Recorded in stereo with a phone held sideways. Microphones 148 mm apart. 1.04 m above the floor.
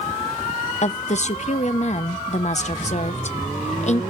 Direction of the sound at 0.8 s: 50° left (ahead or behind).